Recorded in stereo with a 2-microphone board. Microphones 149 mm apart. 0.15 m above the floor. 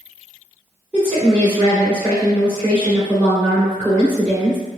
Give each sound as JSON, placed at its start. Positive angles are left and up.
{"t": 0.9, "sound": "a woman speaking", "side_deg": 10, "distance_m": 1.8}